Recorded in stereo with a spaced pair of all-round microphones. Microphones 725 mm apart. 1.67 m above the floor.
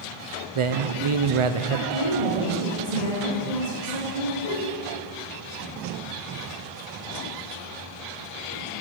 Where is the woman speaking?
70° right (ahead or behind), 2.5 m.